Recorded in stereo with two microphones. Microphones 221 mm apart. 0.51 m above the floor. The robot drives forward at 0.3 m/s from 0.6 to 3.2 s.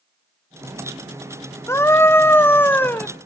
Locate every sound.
1.7 s a scream: 10° left (ahead or behind), 0.7 m